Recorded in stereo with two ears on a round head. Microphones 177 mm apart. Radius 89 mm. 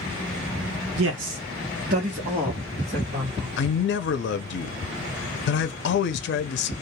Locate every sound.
1.0 s a man speaking: 75° right (ahead or behind), 0.7 m; by 3.5 s 20° right (ahead or behind), 1.6 m
3.6 s a man speaking: 55° left (ahead or behind), 0.5 m